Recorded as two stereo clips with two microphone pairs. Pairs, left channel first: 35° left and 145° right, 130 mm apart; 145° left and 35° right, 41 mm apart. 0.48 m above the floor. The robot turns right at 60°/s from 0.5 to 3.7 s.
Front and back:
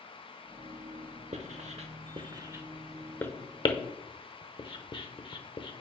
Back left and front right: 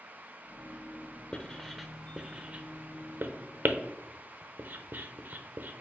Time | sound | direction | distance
1.3 | writing | 155° right | 0.7 m